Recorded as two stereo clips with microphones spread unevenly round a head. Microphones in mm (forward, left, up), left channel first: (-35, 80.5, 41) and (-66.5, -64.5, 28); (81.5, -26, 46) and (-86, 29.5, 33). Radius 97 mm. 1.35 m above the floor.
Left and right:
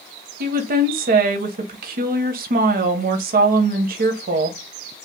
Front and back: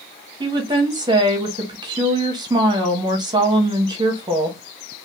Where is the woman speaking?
130° right, 0.6 m.